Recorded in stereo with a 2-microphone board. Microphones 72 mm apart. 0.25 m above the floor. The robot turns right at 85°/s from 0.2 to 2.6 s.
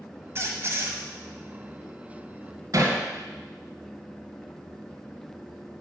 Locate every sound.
0.3 s a squeak: 105° right, 1.1 m; by 1.0 s 50° right, 1.1 m
2.7 s hammering: 50° right (ahead or behind), 1.9 m